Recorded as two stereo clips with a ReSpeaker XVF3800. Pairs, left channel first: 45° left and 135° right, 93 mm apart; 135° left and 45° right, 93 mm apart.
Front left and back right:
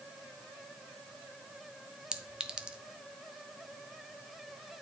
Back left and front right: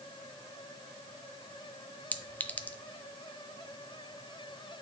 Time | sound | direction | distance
2.1 | a clink | 165° left | 0.5 m